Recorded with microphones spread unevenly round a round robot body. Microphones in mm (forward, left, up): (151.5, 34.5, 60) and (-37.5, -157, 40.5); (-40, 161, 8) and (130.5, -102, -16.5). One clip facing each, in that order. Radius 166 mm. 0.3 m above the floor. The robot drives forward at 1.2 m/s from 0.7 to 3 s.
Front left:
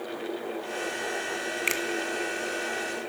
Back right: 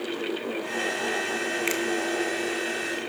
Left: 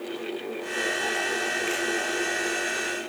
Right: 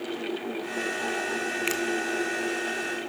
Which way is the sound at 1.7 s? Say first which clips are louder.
Back right 5 dB, right 1 dB; 35° right.